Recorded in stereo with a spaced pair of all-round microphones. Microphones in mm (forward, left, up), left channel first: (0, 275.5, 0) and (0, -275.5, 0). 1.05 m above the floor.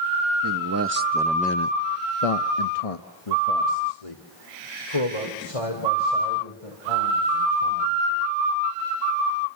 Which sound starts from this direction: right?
A man speaking, at 0.4 s.